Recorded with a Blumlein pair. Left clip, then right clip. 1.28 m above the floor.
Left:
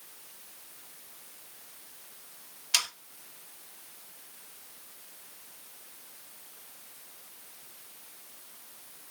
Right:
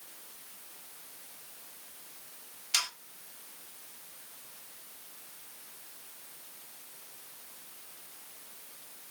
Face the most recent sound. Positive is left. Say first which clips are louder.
# left 3 dB
turn(degrees=20)